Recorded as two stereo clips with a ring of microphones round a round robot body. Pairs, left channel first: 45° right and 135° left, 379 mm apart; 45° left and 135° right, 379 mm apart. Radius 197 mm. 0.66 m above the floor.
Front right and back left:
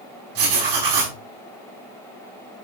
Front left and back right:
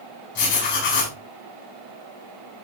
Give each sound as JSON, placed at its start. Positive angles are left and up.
{"t": 0.3, "sound": "writing", "azimuth_deg": 105, "distance_m": 5.5}